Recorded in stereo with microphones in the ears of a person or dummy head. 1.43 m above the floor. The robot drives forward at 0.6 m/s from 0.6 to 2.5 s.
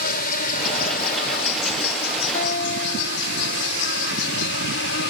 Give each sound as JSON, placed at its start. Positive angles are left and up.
{"t": 0.0, "sound": "an insect", "side_deg": 55}
{"t": 2.3, "sound": "a guitar", "side_deg": 45}